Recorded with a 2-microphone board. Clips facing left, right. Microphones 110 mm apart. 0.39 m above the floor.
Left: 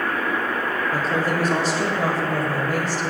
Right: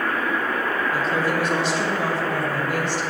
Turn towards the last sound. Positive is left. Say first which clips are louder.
# left 1 dB
turn(degrees=40)  # may be behind; listen again after turning